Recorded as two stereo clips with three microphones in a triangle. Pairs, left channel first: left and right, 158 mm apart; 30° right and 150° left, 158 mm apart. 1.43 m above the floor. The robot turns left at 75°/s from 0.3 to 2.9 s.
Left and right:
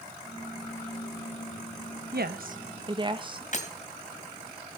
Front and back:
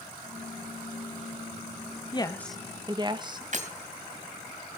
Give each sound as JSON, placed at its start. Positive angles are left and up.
{"t": 2.1, "sound": "a woman speaking", "azimuth_deg": -90, "distance_m": 1.4}
{"t": 3.5, "sound": "breaking glass", "azimuth_deg": 120, "distance_m": 2.5}